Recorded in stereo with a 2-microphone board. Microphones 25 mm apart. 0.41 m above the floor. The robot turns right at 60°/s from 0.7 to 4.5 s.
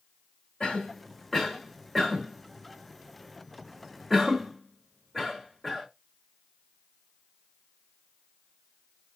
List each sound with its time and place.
0.6 s a cough: 35° left (ahead or behind), 1.2 m; by 5.9 s 10° right (ahead or behind), 1.2 m